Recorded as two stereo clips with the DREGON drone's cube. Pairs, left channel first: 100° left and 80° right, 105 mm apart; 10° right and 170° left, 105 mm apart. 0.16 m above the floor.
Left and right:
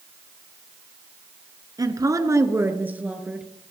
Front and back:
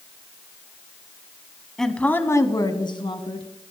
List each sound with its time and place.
1.8 s a woman speaking: 95° right, 1.6 m; by 3.5 s 5° left, 2.5 m